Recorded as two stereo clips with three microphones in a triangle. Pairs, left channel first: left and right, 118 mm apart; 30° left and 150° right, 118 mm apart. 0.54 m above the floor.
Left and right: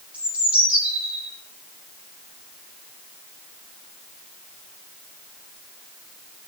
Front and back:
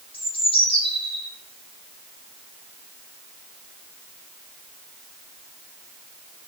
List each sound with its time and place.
0.1 s a bird: 10° right, 5.5 m